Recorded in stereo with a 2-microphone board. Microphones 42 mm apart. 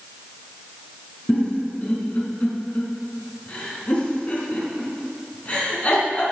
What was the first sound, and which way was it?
A giggle, 35° left (ahead or behind).